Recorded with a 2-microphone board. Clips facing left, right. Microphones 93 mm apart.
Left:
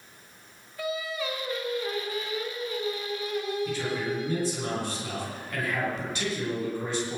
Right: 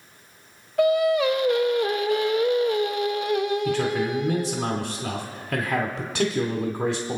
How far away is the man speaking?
About 2.5 m.